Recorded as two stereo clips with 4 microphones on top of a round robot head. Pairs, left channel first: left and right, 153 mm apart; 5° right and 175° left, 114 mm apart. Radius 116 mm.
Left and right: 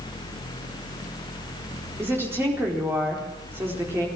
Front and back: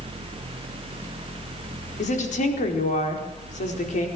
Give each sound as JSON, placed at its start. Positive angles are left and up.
{"t": 2.0, "sound": "a woman speaking", "azimuth_deg": -10, "distance_m": 4.5}